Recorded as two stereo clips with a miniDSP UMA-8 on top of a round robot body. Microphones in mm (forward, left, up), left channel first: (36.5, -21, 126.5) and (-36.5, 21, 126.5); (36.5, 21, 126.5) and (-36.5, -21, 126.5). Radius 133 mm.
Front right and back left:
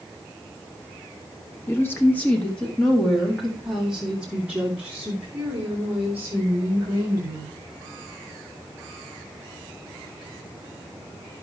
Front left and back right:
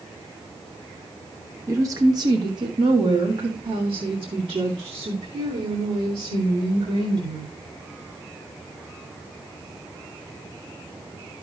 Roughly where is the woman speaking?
Right.